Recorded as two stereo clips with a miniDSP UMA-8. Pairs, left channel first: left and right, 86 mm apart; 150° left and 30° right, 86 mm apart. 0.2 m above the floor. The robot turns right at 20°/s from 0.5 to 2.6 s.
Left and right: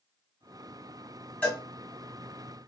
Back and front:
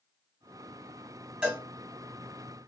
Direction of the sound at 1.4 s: 35° left.